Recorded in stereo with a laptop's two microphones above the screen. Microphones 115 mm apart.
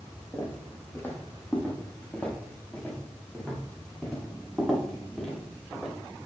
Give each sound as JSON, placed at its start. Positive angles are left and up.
{"t": 0.3, "sound": "footsteps", "side_deg": 25, "distance_m": 3.5}